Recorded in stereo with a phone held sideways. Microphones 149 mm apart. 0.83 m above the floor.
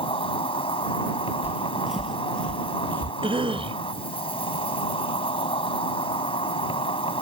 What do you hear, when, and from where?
0.0 s an insect: 35° left (ahead or behind)
1.4 s footsteps: 10° right (ahead or behind); by 3.1 s 15° left (ahead or behind)
3.2 s a cough: 35° right (ahead or behind)